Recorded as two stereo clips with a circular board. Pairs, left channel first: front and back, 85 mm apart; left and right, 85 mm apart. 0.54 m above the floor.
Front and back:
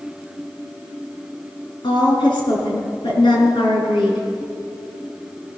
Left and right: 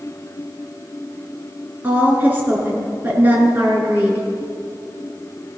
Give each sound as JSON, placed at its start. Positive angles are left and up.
{"t": 1.8, "sound": "a woman speaking", "azimuth_deg": -25, "distance_m": 6.5}